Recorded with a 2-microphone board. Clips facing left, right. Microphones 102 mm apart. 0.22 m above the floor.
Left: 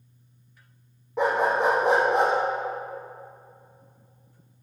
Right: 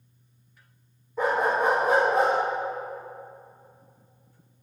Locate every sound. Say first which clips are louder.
1.2 s a dog barking: left 1 dB; 70° left (ahead or behind), 2.5 m